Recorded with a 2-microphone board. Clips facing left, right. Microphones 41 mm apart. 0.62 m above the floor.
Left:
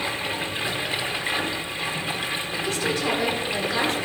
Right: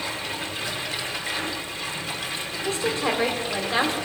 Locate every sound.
0.0 s running water: 30° left (ahead or behind), 1.1 m
2.6 s a woman speaking: 30° right (ahead or behind), 2 m